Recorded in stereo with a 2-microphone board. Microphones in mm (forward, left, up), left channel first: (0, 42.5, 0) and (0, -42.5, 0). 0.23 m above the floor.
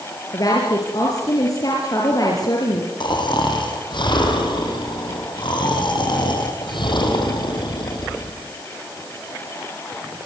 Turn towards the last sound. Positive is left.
turn(degrees=60)  # may be behind; listen again after turning